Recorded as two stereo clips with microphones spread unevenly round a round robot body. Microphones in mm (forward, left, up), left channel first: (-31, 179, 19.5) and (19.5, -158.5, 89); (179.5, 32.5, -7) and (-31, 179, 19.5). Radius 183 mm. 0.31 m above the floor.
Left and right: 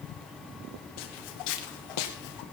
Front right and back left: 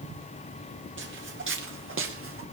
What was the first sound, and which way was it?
Footsteps, 105° left.